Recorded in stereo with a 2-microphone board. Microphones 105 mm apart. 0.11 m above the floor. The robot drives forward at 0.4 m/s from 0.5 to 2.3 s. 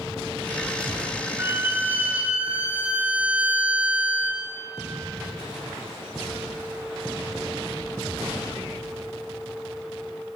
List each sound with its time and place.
1.4 s a violin: 20° right (ahead or behind), 0.6 m; by 4.4 s 15° right (ahead or behind), 0.8 m